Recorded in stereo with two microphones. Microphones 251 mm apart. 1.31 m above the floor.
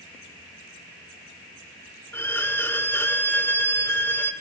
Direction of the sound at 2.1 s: 10° left (ahead or behind).